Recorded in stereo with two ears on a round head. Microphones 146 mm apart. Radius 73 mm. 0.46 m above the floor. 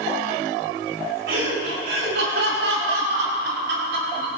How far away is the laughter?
About 6 m.